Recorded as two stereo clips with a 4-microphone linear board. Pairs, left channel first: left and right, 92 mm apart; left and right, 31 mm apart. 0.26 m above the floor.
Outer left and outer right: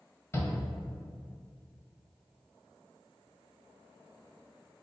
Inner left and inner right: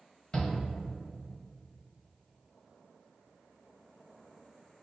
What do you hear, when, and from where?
0.3 s a shout: 30° left (ahead or behind), 1.0 m